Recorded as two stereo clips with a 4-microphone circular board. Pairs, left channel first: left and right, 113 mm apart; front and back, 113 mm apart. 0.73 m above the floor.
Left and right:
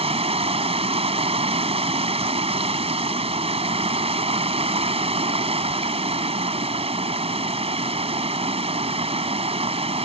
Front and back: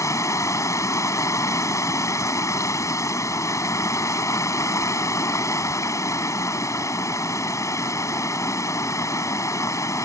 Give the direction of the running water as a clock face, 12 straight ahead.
2 o'clock.